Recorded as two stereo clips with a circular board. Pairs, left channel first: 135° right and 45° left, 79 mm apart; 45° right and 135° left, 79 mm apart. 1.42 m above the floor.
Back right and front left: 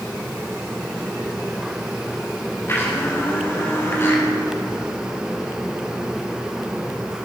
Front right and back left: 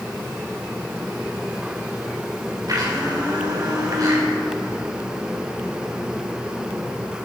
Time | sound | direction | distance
2.7 | a blender | 170° left | 4 m